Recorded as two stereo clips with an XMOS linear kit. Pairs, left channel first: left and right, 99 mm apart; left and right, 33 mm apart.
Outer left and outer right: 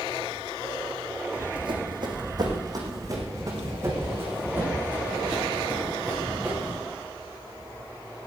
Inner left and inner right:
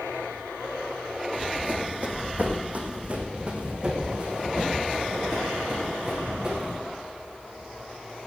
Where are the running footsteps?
60° right (ahead or behind), 3 m; by 6.8 s 10° right (ahead or behind), 6 m.